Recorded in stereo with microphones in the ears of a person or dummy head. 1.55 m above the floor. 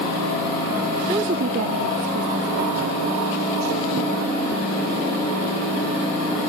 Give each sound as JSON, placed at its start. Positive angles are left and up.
{"t": 1.1, "sound": "a woman speaking", "side_deg": -20, "distance_m": 0.5}